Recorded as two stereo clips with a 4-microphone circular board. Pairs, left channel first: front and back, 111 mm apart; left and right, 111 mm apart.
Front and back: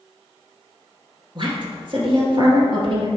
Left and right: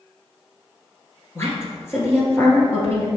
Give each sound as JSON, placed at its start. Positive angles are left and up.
{"t": 1.4, "sound": "a woman speaking", "azimuth_deg": 150, "distance_m": 1.8}